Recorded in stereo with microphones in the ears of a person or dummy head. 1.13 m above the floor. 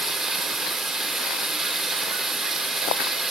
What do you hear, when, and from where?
0.0 s running water: 5° right (ahead or behind), 3 m